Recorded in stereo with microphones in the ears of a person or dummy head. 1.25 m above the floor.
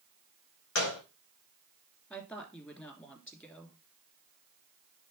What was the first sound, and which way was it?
A gunshot, 70° left (ahead or behind).